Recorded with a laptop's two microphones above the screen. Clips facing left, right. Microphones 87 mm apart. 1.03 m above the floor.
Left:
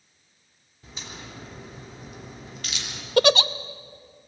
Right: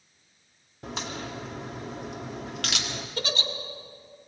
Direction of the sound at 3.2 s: 70° left (ahead or behind).